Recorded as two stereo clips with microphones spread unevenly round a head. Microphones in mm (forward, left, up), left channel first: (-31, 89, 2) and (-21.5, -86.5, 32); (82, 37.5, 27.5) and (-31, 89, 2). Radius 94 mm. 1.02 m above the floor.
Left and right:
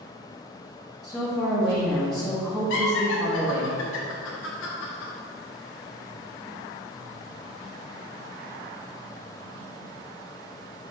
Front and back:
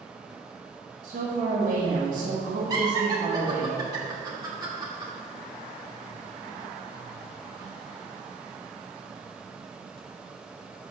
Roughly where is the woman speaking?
Behind.